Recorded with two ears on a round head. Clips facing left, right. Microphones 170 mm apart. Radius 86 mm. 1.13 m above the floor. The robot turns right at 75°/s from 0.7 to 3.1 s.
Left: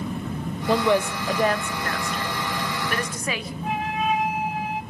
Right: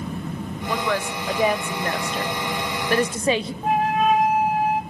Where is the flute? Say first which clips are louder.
Right 6 dB; 40° right (ahead or behind), 1.0 m.